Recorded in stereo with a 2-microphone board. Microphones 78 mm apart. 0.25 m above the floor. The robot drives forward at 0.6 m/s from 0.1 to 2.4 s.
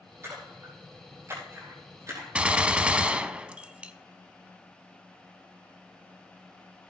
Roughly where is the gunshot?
Centre.